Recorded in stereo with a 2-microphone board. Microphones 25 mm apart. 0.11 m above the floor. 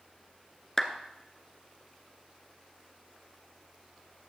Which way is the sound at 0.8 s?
10° left (ahead or behind).